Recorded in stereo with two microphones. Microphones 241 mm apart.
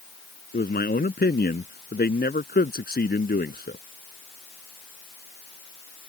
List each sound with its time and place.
0.5 s a man speaking: 40° left (ahead or behind)